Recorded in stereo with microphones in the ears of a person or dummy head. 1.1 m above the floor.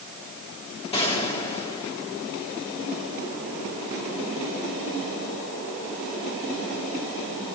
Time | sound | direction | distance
0.9 | a gunshot | 25° left (ahead or behind) | 3 m